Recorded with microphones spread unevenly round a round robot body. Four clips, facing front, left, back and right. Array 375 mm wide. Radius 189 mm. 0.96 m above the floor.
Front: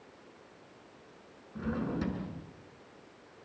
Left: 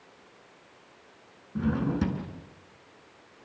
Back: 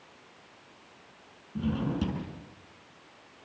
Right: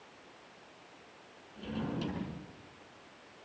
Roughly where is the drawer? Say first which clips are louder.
Left 10 dB, back 4 dB; behind left.